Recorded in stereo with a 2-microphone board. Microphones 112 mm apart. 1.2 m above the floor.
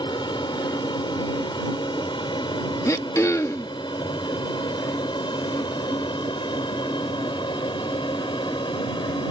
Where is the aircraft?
45° left (ahead or behind).